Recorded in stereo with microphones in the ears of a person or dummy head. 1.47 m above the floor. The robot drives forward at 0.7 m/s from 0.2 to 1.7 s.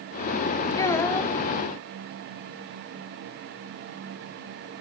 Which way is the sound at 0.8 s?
15° left (ahead or behind).